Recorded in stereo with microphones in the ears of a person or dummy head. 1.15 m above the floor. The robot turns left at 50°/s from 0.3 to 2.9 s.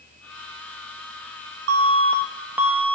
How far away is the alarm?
About 1.0 m.